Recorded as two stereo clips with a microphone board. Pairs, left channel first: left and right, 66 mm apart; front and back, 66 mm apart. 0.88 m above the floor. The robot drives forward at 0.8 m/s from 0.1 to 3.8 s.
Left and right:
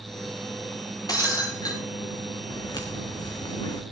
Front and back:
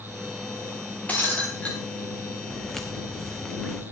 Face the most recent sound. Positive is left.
turn(degrees=80)